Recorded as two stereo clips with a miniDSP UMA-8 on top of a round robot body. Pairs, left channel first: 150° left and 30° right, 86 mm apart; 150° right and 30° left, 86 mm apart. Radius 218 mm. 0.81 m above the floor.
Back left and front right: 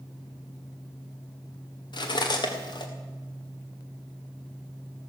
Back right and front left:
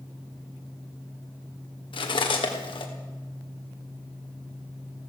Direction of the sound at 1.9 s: 175° right.